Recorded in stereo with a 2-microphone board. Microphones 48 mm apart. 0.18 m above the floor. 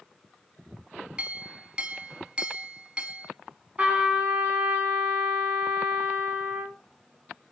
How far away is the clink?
About 0.7 m.